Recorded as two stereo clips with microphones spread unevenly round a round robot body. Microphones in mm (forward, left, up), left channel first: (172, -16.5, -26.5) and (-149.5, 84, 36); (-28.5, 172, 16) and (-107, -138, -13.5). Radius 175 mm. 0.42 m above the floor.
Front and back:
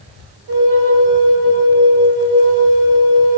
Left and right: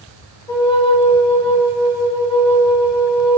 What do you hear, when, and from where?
0.5 s a flute: 150° left, 0.7 m